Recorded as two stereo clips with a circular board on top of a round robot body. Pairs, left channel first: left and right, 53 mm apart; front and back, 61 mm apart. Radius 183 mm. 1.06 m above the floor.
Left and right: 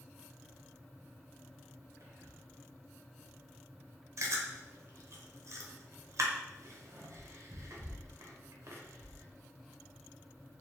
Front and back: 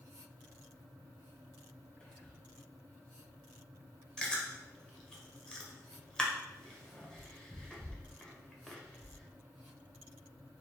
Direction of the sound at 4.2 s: 75° right.